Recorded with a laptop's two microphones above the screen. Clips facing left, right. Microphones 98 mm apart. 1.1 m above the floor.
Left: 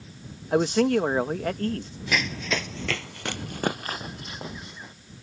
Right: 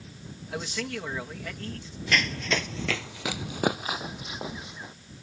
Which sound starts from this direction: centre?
Running footsteps, at 2.1 s.